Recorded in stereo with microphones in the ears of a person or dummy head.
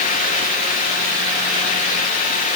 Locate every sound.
Only background noise.